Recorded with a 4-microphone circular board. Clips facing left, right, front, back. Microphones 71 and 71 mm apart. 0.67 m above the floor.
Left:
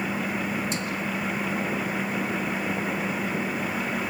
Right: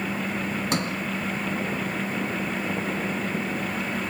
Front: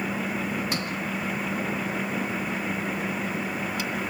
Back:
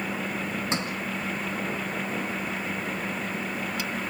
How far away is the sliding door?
About 1.9 m.